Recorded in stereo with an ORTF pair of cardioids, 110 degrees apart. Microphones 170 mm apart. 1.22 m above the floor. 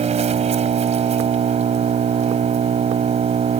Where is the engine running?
40° right.